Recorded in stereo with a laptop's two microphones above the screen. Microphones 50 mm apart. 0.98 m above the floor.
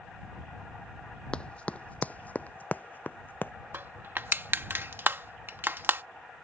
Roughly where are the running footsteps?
Centre.